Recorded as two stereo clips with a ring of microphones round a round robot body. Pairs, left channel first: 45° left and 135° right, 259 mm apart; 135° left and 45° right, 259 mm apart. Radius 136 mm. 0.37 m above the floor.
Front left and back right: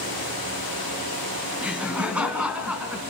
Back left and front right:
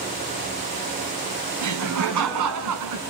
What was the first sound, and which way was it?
Laughter, 50° right.